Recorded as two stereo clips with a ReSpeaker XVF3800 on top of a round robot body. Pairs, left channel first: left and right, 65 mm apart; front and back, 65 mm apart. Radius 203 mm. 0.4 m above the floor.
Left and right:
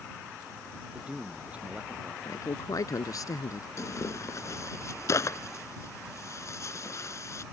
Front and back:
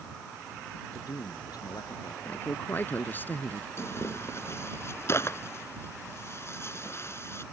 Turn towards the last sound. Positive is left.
turn(degrees=50)